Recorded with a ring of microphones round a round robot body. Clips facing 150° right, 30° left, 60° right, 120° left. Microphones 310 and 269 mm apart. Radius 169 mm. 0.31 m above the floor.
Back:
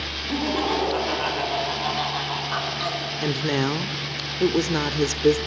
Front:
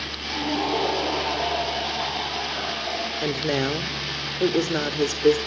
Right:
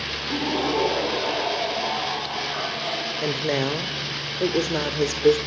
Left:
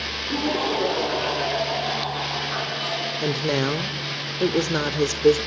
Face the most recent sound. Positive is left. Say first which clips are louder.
# back 1 dB, left 1 dB
turn(degrees=170)